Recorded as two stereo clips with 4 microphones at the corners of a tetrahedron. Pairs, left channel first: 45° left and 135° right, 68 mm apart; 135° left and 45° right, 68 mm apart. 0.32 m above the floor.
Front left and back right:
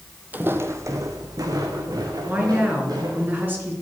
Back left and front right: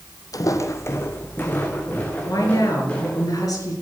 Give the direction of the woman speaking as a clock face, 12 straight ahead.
7 o'clock.